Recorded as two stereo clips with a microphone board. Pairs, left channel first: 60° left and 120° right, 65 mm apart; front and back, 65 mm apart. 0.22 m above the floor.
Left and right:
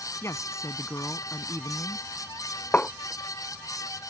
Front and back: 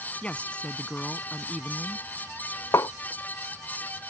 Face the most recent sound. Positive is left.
turn(degrees=0)